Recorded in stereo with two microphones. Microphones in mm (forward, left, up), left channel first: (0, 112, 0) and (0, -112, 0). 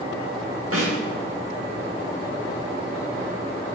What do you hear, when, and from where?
0.7 s a snare drum: 75° right (ahead or behind), 8.5 m